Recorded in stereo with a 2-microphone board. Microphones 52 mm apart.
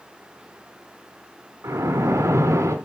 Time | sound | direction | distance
1.6 | a splash | 70° right (ahead or behind) | 2.5 m